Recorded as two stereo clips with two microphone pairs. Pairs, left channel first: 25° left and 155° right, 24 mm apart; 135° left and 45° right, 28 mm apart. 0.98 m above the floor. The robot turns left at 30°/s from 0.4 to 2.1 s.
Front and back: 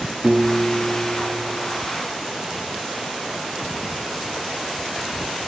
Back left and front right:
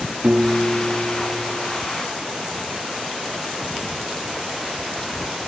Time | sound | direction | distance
0.2 | a piano | 95° right | 2 m